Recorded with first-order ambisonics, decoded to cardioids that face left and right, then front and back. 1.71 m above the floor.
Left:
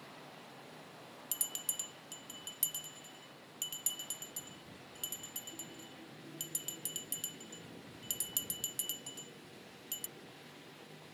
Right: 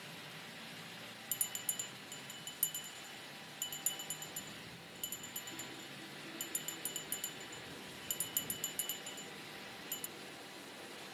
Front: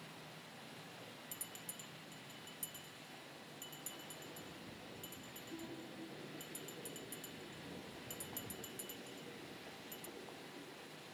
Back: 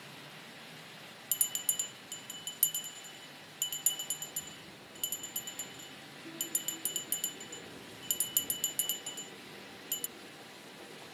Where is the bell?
175° left.